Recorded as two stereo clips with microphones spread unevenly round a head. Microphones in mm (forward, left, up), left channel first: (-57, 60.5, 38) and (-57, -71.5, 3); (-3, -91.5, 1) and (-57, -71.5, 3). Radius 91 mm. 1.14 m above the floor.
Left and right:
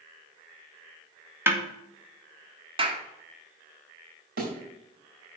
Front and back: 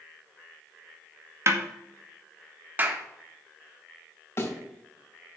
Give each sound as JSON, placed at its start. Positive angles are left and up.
{"t": 1.5, "sound": "a snare drum", "azimuth_deg": -160, "distance_m": 2.0}
{"t": 2.8, "sound": "a clap", "azimuth_deg": -140, "distance_m": 2.0}
{"t": 4.4, "sound": "a thud", "azimuth_deg": -65, "distance_m": 4.0}